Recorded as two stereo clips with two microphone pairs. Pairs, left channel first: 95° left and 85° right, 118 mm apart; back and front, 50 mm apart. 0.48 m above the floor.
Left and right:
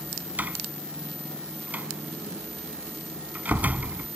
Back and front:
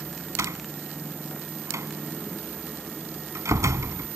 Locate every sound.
0.4 s a door slam: 5° right